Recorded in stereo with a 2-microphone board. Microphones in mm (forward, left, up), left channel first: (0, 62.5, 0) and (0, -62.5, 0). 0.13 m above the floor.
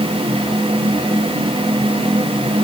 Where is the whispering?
I don't hear whispering.